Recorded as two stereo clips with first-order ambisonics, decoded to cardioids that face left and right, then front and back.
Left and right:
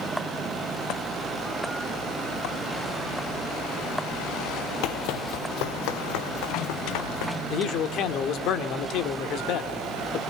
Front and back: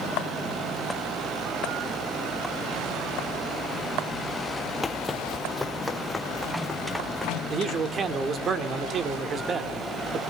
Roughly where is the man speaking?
Behind left.